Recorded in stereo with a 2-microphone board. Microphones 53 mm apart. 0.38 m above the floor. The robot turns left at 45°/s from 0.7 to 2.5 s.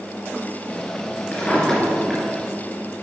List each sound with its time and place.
1.3 s a drawer: 30° left (ahead or behind), 3 m; by 2.2 s 10° right (ahead or behind), 3 m